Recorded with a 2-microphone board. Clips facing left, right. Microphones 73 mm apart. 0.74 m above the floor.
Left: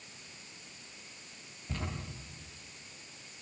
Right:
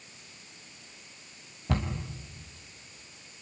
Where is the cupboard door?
80° right, 4.5 m.